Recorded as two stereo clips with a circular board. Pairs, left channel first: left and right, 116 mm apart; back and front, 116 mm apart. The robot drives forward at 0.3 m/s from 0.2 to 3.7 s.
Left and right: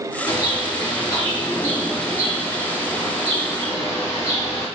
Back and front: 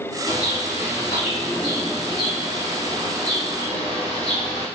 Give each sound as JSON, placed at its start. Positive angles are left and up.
{"t": 0.3, "sound": "a bird", "azimuth_deg": 145, "distance_m": 1.7}